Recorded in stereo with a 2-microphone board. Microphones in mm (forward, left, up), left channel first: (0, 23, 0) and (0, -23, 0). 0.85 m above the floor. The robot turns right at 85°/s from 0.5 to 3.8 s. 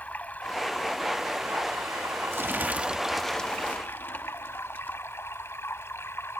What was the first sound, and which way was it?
Running water, 145° left.